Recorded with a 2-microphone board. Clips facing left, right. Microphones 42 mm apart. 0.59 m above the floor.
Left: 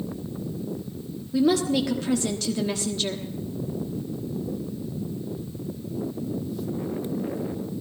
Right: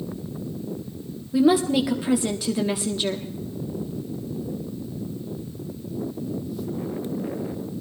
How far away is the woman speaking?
About 1.0 m.